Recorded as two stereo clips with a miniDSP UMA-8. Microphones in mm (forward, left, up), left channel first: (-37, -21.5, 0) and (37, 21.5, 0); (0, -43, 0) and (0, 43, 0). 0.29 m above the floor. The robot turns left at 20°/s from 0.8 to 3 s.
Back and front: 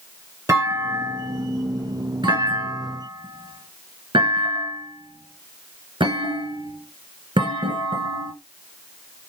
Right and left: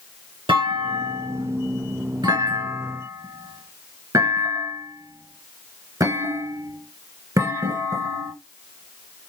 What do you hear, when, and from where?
0.5 s a clunk: 85° left, 1.9 m; by 8.3 s 40° left, 1.9 m